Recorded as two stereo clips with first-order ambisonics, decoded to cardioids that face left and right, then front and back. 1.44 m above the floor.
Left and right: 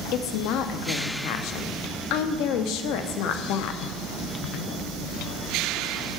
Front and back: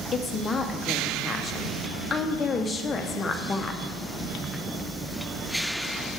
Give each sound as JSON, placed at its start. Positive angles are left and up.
{"t": 0.1, "sound": "a woman speaking", "azimuth_deg": 70, "distance_m": 0.6}